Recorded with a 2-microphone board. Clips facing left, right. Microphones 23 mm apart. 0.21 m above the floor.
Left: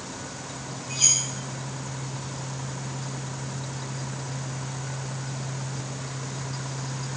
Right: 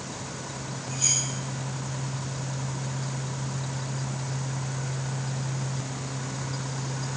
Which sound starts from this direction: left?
Cutlery clinking, at 0.9 s.